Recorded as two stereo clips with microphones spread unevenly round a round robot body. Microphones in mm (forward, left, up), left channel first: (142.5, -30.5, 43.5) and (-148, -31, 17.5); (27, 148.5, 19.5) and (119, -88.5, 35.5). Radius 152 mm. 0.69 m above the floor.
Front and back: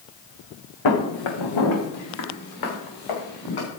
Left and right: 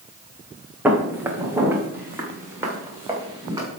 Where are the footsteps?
15° left, 2.5 m; by 3.7 s 10° left, 7 m.